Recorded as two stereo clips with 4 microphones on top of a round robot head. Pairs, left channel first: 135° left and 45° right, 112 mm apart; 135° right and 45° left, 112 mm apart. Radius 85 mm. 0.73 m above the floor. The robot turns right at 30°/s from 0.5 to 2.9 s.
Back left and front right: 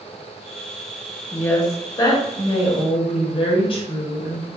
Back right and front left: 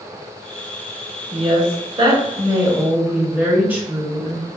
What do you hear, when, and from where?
1.3 s a woman speaking: 65° left, 1.1 m; by 4.5 s 115° left, 1.1 m